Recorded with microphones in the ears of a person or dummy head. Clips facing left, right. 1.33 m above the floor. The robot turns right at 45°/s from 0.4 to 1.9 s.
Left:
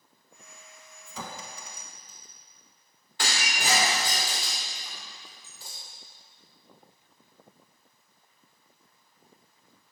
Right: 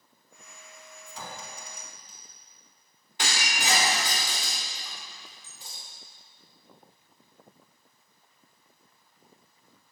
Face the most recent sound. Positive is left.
turn(degrees=-15)  # may be behind; listen again after turning